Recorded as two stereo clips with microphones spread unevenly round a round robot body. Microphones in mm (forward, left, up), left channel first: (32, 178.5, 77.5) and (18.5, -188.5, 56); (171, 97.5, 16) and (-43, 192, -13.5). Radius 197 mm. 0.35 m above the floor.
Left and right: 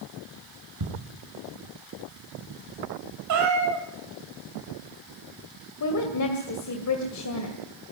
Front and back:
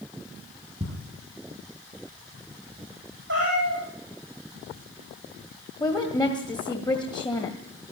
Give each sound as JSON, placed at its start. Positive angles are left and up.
{"t": 0.8, "sound": "ticking", "azimuth_deg": -130, "distance_m": 6.5}
{"t": 3.3, "sound": "a cat meowing", "azimuth_deg": -140, "distance_m": 3.5}
{"t": 5.8, "sound": "a woman speaking", "azimuth_deg": 50, "distance_m": 2.0}